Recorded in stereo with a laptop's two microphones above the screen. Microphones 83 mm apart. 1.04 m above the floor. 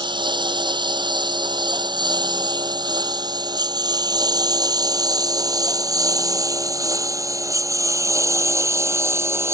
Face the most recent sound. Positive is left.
turn(degrees=-35)  # may be behind; listen again after turning